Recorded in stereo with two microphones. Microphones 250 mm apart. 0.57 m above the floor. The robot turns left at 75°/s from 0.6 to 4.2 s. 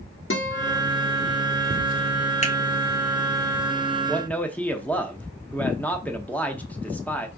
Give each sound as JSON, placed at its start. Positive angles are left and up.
{"t": 0.3, "sound": "a guitar", "side_deg": 50, "distance_m": 1.0}
{"t": 2.4, "sound": "a finger snap", "side_deg": 25, "distance_m": 1.0}
{"t": 4.1, "sound": "a man speaking", "side_deg": 5, "distance_m": 0.7}